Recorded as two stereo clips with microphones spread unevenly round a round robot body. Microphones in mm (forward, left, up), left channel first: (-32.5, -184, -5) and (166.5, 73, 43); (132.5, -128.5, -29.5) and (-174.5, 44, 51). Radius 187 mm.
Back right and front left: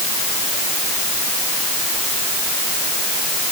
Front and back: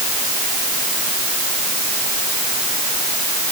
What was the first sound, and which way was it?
Only background noise.